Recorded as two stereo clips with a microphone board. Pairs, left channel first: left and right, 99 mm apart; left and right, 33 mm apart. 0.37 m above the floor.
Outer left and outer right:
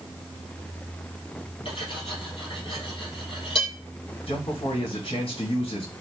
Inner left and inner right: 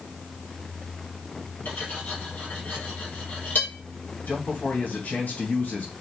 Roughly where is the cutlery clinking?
Left.